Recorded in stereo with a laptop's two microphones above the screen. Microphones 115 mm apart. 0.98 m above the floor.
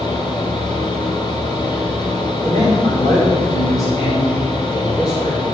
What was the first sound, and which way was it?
A fan, 40° left (ahead or behind).